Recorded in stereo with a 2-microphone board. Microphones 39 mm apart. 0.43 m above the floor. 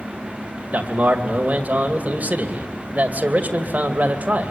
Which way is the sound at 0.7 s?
40° right (ahead or behind).